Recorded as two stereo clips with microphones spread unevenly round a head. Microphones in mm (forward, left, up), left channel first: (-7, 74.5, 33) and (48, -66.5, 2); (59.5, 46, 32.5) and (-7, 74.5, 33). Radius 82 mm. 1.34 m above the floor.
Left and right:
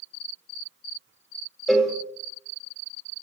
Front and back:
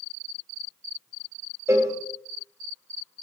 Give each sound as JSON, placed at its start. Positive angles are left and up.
{"t": 1.7, "sound": "a cowbell", "azimuth_deg": 180, "distance_m": 0.8}